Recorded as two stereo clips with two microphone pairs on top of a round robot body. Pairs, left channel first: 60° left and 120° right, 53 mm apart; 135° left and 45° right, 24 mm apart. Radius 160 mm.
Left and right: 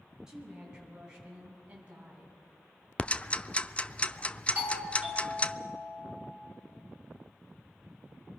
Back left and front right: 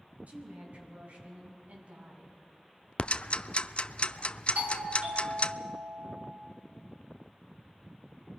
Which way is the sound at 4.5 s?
60° right.